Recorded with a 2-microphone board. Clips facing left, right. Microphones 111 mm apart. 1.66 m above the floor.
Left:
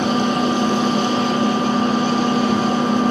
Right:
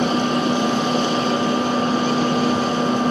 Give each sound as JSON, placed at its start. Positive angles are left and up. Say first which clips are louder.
{"t": 0.0, "sound": "an engine running", "louder": "left 1 dB", "side_deg": -45, "distance_m": 3.0}